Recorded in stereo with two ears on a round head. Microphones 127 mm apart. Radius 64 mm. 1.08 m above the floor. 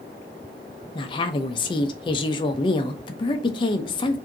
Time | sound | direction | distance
0.9 | a woman speaking | 30° left (ahead or behind) | 0.6 m